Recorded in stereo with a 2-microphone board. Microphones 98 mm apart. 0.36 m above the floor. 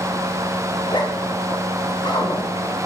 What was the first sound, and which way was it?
A zipper, 55° left (ahead or behind).